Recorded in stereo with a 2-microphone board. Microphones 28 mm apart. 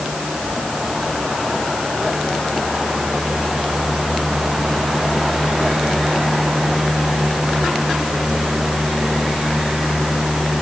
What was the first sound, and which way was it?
Only background noise.